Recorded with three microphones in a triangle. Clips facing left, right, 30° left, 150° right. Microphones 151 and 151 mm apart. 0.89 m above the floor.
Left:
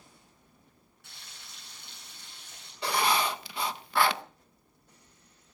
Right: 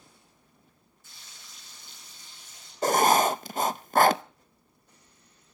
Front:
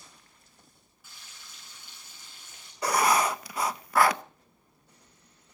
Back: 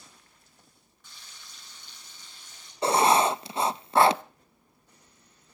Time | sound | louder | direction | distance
1.0 | frying | left 1 dB, even | 115° left | 8 m
2.8 | writing | right 7 dB, back 3 dB | 95° right | 0.6 m